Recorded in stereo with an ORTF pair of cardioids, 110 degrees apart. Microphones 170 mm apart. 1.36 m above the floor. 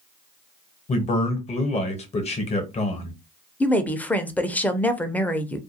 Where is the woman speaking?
10° left, 0.5 m.